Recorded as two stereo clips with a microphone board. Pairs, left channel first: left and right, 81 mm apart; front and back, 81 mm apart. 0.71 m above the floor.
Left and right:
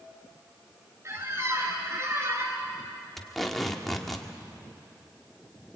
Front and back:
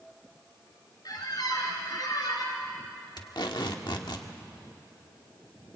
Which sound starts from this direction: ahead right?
A squeak, at 1.1 s.